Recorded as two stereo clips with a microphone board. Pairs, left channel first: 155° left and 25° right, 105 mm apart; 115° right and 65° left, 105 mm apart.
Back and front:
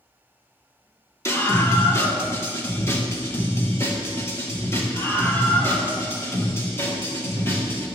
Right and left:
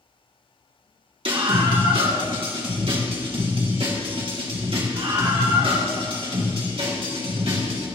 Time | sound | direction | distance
1.2 | a scream | 95° left | 3 m